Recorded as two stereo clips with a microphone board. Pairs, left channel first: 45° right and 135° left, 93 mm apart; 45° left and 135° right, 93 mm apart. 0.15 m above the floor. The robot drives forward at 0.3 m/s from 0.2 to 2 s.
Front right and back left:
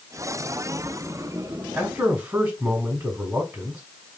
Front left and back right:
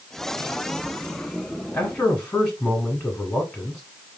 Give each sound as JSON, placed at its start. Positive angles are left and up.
{"t": 1.7, "sound": "a man speaking", "azimuth_deg": 95, "distance_m": 1.1}